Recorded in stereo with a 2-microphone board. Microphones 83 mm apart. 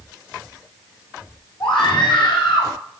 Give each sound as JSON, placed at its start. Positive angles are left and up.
{"t": 1.6, "sound": "a scream", "side_deg": 70, "distance_m": 4.5}